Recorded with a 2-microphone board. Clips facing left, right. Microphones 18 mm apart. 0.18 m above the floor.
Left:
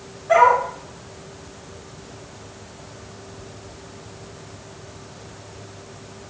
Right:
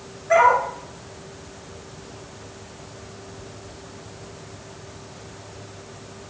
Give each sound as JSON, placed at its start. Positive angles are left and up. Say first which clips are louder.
{"t": 0.3, "sound": "a dog barking", "louder": "left 1 dB", "side_deg": 70, "distance_m": 2.5}